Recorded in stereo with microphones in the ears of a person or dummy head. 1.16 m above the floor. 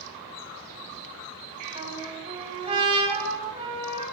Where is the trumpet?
35° right (ahead or behind), 7.5 m.